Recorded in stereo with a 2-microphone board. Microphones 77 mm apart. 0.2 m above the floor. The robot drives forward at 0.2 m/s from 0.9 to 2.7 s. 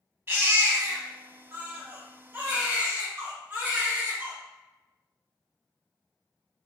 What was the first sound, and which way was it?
A baby crying, 30° right (ahead or behind).